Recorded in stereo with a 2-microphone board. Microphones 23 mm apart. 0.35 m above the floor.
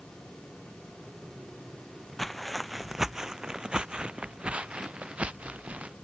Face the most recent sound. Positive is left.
turn(degrees=-75)  # may be behind; listen again after turning